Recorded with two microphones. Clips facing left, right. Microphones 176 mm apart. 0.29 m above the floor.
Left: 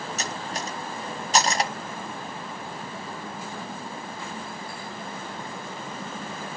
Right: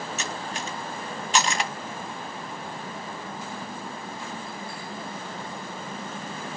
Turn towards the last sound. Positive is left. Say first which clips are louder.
# left 1 dB
turn(degrees=40)  # may be behind; listen again after turning